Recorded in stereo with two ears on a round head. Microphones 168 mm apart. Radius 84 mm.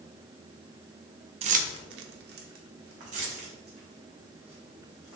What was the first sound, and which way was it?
Keys jangling, 35° right (ahead or behind).